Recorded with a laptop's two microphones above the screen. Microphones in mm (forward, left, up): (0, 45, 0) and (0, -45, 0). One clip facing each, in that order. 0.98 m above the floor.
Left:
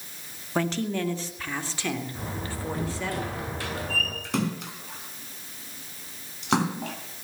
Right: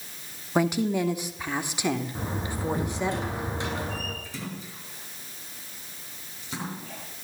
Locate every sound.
0.6 s a woman speaking: 10° right (ahead or behind), 2.5 m; by 3.1 s 20° right (ahead or behind), 4.5 m
2.1 s a door slam: 20° right (ahead or behind), 9 m
4.2 s a splash: 75° left (ahead or behind), 3.5 m